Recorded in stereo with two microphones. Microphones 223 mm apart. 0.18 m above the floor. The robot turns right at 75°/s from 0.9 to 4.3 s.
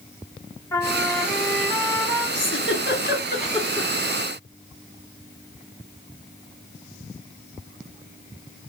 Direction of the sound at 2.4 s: 55° left (ahead or behind).